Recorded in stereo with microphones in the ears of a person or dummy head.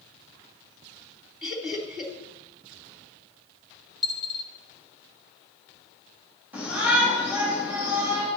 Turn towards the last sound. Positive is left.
turn(degrees=-10)  # may be behind; listen again after turning